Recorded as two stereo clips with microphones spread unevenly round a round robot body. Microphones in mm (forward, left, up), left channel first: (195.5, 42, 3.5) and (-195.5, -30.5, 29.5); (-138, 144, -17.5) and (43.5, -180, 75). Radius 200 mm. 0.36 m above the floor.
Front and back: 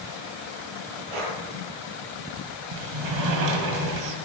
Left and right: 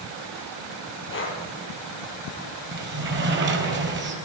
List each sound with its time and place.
1.1 s breathing: straight behind, 2.5 m
2.7 s a sliding door: 125° right, 1.7 m